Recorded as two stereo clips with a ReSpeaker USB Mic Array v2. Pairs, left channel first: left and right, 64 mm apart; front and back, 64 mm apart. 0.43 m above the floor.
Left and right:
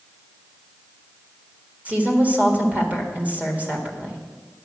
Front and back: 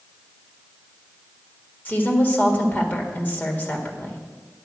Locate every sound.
1.9 s a woman speaking: 40° right, 1.7 m